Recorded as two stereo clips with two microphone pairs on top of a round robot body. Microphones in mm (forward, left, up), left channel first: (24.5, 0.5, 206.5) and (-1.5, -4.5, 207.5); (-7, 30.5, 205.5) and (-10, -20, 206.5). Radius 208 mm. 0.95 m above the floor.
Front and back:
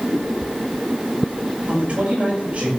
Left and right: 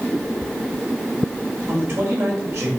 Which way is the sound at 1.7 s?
130° right.